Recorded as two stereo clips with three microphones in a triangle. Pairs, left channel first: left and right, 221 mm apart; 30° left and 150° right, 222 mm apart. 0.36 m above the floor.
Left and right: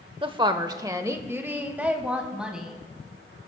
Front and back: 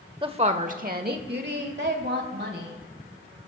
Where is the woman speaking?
120° right, 0.8 m; by 2.7 s 175° right, 2 m.